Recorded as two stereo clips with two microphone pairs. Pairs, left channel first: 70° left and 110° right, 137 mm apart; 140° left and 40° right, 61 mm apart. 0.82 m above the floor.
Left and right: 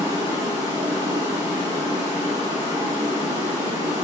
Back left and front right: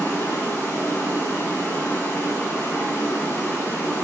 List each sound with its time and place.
0.0 s running water: straight behind, 5.5 m